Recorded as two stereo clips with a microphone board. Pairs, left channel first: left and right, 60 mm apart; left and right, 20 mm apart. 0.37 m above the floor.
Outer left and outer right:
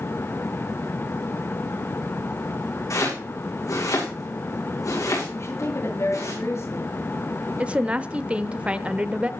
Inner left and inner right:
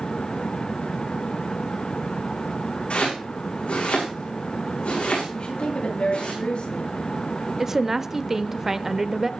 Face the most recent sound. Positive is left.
turn(degrees=-20)  # may be behind; listen again after turning